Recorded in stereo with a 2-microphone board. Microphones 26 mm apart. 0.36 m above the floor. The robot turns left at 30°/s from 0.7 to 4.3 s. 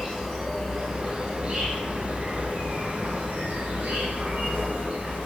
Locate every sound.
0.0 s an insect: 10° right, 1.6 m; by 5.3 s 120° right, 1.6 m